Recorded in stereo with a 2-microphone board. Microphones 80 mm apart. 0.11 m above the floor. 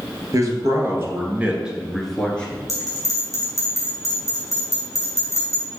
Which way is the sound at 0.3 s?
45° right (ahead or behind).